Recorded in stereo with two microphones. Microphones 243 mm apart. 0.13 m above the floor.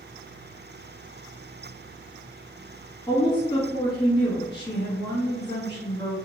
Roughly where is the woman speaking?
Centre.